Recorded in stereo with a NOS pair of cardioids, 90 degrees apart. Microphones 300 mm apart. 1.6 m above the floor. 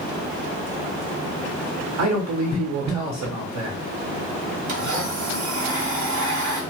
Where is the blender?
65° right, 1.3 m.